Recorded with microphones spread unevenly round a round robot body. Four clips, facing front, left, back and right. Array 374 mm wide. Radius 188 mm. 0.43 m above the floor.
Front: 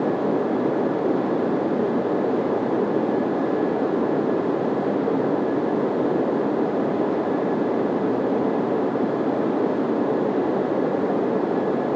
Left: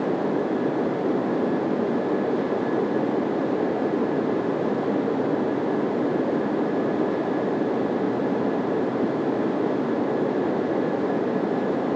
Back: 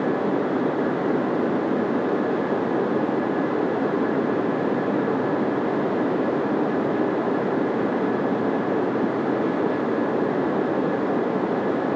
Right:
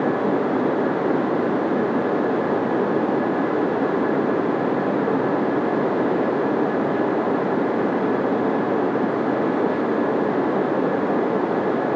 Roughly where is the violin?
I don't hear a violin.